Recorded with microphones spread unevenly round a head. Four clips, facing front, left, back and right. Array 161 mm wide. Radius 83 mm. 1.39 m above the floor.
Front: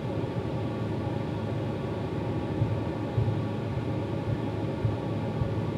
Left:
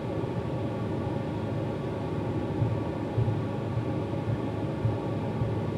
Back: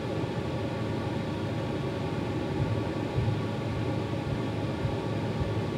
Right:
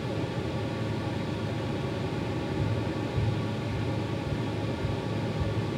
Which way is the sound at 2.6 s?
145° right.